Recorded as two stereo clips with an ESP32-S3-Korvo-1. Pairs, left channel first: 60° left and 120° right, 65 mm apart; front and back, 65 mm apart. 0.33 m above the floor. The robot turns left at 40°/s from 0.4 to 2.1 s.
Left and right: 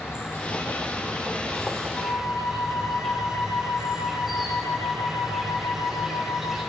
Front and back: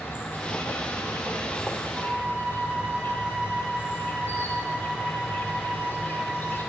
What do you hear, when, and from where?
0.0 s an insect: 35° left, 2.5 m; by 6.7 s 35° right, 2.5 m
1.9 s a flute: 115° left, 4 m; by 6.6 s 110° left, 4 m